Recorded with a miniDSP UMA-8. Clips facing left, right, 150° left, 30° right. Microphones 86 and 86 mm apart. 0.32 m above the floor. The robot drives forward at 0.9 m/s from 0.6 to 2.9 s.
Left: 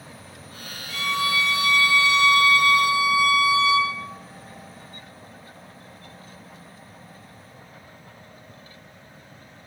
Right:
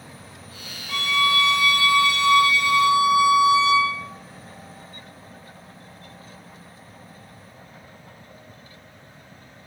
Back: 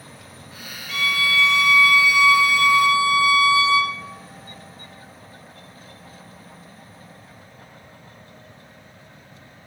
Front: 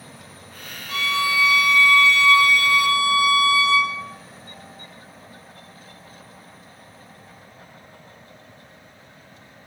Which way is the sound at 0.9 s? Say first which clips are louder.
Right 3 dB, even; 80° right.